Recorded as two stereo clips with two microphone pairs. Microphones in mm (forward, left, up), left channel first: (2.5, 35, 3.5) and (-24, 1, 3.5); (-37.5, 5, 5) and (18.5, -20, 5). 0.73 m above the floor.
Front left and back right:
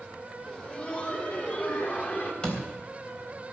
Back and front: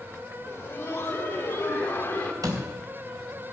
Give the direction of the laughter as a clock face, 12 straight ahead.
8 o'clock.